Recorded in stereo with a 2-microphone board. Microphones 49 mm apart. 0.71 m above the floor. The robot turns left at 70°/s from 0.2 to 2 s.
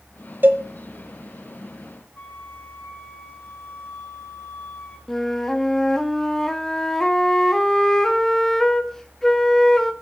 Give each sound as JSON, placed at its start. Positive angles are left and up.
{"t": 0.4, "sound": "a cowbell", "side_deg": -45, "distance_m": 1.3}
{"t": 2.1, "sound": "a flute", "side_deg": 40, "distance_m": 6.5}
{"t": 5.1, "sound": "a flute", "side_deg": 10, "distance_m": 1.2}